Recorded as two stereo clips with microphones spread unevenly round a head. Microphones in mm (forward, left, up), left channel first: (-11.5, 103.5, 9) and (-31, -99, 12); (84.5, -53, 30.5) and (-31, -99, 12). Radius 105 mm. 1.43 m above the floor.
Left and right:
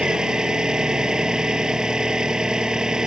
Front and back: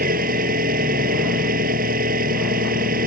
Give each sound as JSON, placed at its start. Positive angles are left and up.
{"t": 0.0, "sound": "an engine running", "azimuth_deg": 180}